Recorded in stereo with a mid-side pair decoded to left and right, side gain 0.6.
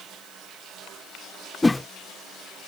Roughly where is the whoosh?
Ahead.